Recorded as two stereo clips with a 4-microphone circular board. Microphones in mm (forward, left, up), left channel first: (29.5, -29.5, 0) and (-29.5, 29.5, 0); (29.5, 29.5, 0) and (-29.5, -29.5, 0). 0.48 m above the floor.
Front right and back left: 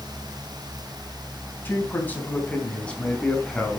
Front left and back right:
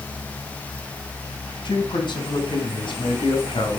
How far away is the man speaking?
About 3 m.